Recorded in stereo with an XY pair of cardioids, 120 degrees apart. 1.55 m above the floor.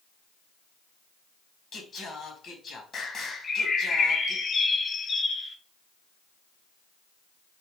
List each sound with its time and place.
1.7 s singing: 45° left, 1.3 m
3.4 s a bird: 40° left, 0.8 m